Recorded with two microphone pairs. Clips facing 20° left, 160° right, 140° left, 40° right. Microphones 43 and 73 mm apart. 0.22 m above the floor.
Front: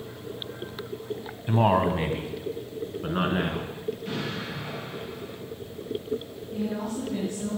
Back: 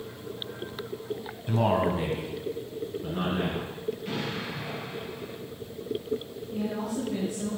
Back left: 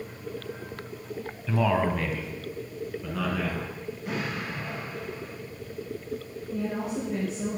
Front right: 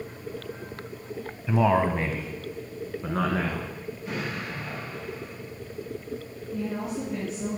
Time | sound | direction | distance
1.5 | a man speaking | 5° left | 1.0 m
4.0 | an explosion | 115° left | 4.5 m
6.5 | a woman speaking | 120° left | 4 m